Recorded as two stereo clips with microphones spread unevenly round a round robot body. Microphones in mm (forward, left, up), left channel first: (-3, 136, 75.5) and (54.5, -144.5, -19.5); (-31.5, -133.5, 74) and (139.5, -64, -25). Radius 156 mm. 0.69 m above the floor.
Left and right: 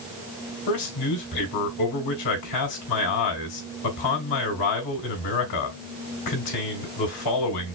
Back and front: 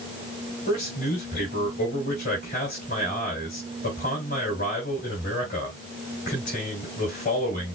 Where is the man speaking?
135° left, 3.5 m.